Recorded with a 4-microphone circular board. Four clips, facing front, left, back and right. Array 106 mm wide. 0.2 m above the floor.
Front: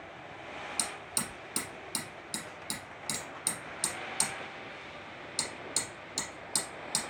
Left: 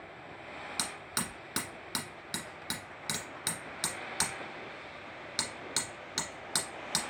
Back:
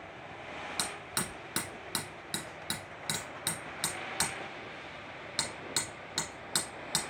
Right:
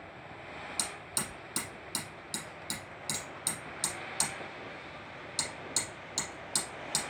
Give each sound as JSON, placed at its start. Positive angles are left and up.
{"t": 0.8, "sound": "hammering", "azimuth_deg": 135, "distance_m": 1.7}